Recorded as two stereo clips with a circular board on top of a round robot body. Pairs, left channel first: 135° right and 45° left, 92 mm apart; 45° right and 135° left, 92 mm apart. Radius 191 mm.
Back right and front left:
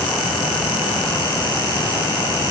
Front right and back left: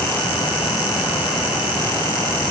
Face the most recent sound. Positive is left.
No sound to turn to.